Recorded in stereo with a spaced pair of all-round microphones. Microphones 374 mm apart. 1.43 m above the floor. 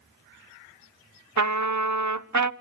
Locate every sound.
1.4 s a trumpet: 50° right (ahead or behind), 0.8 m